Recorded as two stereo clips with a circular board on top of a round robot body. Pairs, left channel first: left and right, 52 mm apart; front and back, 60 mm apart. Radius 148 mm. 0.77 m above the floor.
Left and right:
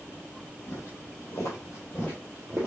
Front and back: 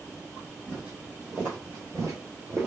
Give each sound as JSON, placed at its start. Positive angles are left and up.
{"t": 0.7, "sound": "footsteps", "azimuth_deg": 105, "distance_m": 1.4}